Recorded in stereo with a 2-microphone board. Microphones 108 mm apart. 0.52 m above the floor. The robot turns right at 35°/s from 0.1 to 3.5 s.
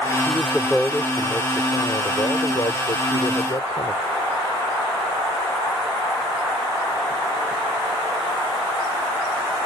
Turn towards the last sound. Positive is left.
turn(degrees=105)